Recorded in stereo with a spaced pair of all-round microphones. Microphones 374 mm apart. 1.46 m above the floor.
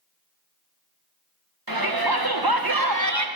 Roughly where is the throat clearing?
I don't hear throat clearing.